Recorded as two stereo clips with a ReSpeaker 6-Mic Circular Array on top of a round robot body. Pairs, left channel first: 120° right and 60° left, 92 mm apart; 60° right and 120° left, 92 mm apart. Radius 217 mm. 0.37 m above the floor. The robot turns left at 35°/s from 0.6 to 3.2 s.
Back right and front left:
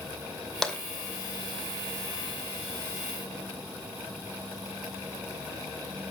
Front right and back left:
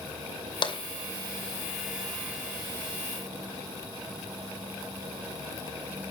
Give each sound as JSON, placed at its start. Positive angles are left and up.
{"t": 0.6, "sound": "tapping", "azimuth_deg": -35, "distance_m": 2.5}